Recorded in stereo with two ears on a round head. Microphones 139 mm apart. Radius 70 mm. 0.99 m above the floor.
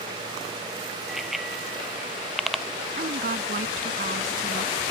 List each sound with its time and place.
1.1 s a bicycle bell: centre (ahead or behind)
3.0 s a woman speaking: 55° right (ahead or behind)